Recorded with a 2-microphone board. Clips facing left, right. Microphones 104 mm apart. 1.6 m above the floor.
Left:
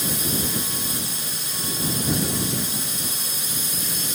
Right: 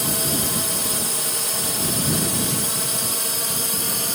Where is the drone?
65° right (ahead or behind); by 4.2 s 60° right (ahead or behind).